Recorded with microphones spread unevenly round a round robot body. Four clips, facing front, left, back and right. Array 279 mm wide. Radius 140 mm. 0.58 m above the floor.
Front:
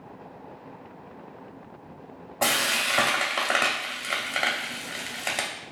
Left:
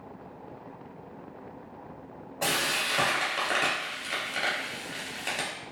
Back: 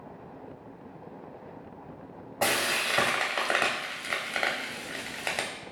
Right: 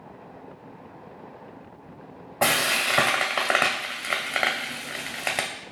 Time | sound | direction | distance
2.4 | frying | 75° right | 0.7 m